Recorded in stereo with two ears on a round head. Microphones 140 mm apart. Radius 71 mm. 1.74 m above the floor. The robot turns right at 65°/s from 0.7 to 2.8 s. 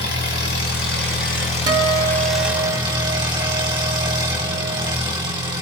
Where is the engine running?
75° left, 7.5 m; by 5.6 s 150° right, 7.5 m.